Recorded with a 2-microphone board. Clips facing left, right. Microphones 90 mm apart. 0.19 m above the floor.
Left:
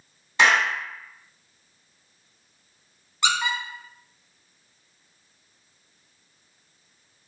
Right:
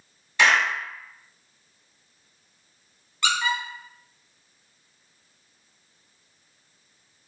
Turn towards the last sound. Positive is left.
turn(degrees=20)  # may be behind; listen again after turning